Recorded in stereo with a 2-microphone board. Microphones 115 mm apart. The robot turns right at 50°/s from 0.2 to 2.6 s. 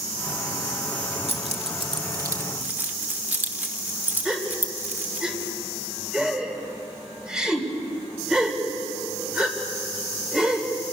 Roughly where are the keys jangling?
Right.